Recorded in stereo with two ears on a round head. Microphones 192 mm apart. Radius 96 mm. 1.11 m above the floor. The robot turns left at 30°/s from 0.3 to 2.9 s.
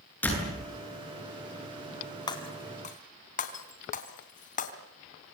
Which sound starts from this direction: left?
Breaking glass, at 2.3 s.